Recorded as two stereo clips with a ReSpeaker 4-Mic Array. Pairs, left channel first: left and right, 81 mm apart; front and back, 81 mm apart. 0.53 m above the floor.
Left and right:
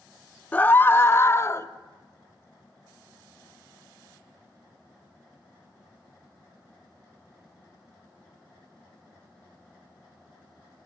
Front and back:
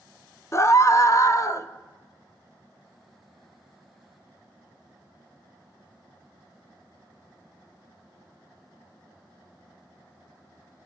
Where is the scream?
30° left, 1.0 m; by 1.7 s 40° left, 1.5 m.